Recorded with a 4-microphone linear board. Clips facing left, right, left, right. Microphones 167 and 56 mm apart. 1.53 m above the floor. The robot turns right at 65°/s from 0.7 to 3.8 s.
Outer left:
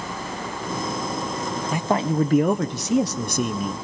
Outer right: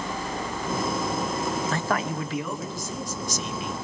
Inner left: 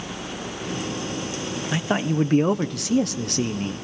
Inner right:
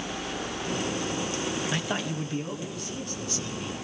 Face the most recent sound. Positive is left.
turn(degrees=145)